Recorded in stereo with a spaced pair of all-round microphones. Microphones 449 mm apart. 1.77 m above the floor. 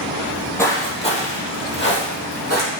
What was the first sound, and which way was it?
Footsteps, centre (ahead or behind).